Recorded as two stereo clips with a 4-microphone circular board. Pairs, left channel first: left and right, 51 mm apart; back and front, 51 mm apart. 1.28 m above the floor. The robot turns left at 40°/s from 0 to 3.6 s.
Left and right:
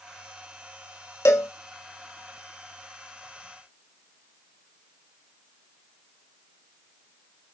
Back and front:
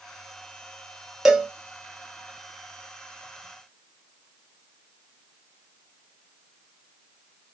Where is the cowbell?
80° left, 0.6 m; by 1.5 s 70° left, 0.6 m.